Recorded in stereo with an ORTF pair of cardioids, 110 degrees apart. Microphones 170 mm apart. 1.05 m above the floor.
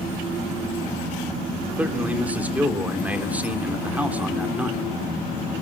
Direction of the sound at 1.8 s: 10° right.